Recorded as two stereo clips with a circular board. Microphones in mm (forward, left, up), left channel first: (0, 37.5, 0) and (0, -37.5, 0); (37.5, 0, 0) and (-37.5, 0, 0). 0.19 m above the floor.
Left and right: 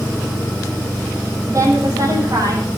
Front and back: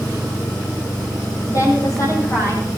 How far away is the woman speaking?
About 8.5 m.